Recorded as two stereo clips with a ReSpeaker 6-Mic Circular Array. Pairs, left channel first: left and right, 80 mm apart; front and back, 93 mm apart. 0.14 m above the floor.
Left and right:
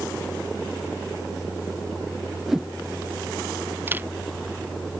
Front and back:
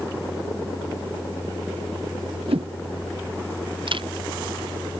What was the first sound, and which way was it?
A whoosh, 175° right.